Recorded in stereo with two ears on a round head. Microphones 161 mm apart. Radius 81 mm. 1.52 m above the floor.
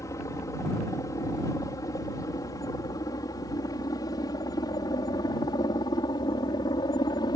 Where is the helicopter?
15° left (ahead or behind); by 7.4 s 20° left (ahead or behind).